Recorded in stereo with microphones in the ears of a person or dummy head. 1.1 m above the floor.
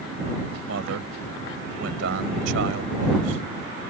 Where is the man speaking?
70° right (ahead or behind).